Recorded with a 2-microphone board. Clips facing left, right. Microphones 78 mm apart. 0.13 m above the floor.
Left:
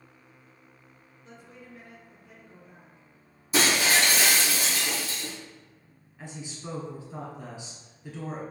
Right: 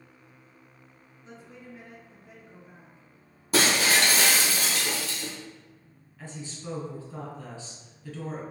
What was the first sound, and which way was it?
A woman speaking, 35° right (ahead or behind).